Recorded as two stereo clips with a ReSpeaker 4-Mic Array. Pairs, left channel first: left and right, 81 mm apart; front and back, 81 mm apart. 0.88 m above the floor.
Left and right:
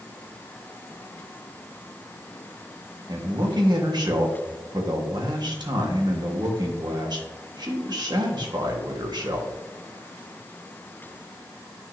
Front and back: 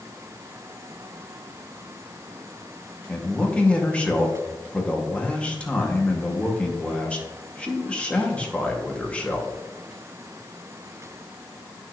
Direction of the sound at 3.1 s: 75° right.